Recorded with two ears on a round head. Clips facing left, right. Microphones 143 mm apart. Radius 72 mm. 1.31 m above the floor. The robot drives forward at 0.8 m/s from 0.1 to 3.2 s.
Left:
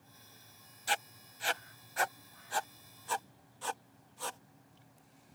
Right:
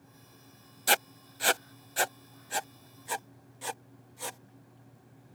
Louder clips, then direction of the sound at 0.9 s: Right 6 dB; 65° right (ahead or behind).